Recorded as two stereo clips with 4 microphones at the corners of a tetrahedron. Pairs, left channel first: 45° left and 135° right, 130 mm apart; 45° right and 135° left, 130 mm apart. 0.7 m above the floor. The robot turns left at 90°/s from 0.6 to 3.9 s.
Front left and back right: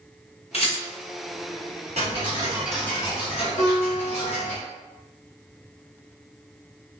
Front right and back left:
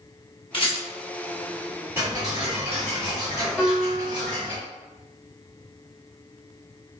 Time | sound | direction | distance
0.5 | a rattle | 5° left | 0.9 m
2.0 | ticking | 155° right | 1.4 m
3.6 | a piano | 55° left | 0.7 m